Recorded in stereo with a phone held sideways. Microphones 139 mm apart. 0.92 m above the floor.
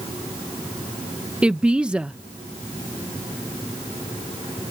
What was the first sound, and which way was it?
A woman speaking, 5° right (ahead or behind).